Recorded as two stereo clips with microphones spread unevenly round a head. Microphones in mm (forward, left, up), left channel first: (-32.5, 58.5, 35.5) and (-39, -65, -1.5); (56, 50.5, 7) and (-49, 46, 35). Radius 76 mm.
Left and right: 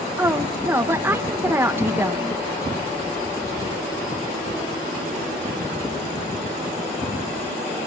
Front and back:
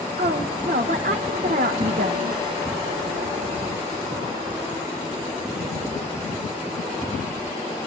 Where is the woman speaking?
175° right, 1.4 m.